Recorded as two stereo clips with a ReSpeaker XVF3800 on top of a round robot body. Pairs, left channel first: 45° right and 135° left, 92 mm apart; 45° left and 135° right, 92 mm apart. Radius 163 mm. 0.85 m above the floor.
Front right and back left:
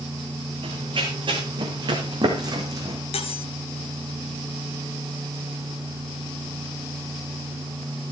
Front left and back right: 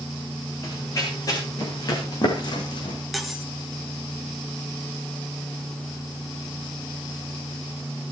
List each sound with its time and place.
0.6 s running footsteps: 100° left, 3.5 m; by 3.0 s 80° left, 2 m
3.1 s cutlery clinking: 45° right, 1.6 m